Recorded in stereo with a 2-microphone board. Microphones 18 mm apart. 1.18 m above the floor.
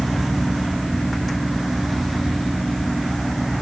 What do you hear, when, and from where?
Only background noise.